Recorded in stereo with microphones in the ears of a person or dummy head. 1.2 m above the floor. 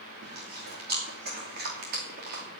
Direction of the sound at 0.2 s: 50° right (ahead or behind).